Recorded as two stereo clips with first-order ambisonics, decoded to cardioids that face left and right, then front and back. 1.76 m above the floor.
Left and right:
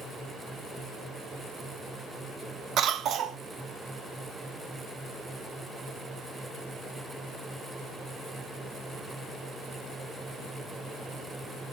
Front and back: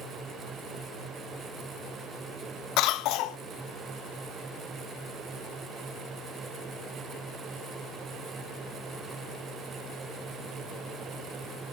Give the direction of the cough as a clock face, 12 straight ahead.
1 o'clock.